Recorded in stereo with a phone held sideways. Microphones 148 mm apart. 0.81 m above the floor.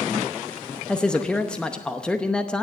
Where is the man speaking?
5° left (ahead or behind), 0.8 m.